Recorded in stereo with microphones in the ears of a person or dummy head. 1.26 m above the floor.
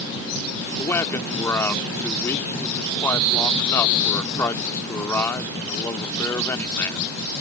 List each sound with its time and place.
0.8 s a man speaking: 15° left (ahead or behind)